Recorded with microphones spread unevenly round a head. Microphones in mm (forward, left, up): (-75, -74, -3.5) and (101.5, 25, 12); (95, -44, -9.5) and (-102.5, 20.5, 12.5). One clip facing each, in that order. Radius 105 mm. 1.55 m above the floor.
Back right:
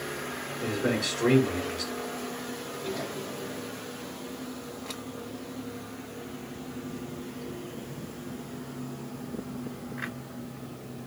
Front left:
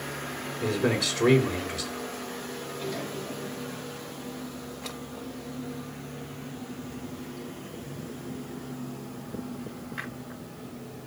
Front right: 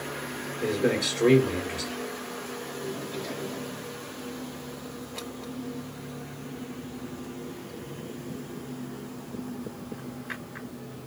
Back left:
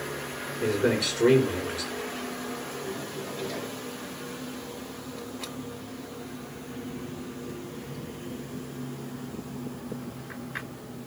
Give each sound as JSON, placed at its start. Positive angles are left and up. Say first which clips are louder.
{"t": 0.6, "sound": "a man speaking", "louder": "front left 2 dB, back left 1 dB", "azimuth_deg": 80, "distance_m": 5.5}